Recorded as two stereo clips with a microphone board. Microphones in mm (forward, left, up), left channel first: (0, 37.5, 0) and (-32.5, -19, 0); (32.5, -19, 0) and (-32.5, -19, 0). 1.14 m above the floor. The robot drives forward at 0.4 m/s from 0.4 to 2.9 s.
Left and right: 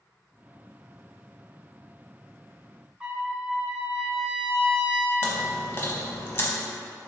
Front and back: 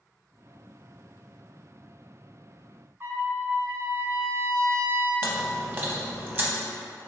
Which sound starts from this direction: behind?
A trumpet, at 3.0 s.